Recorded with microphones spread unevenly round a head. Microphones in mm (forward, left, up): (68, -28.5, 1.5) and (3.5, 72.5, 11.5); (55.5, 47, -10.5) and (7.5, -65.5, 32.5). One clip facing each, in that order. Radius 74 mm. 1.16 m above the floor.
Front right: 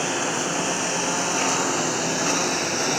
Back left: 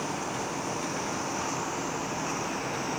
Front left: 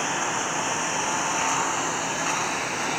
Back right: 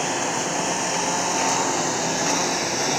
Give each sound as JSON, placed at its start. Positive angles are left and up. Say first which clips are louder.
{"t": 0.0, "sound": "a lawn mower", "louder": "front right 7 dB, back right 3 dB", "azimuth_deg": -65}